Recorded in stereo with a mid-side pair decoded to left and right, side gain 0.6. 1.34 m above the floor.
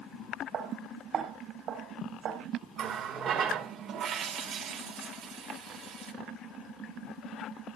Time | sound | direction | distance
0.5 | footsteps | 50° right | 4.5 m
2.8 | a running tap | 55° right | 3 m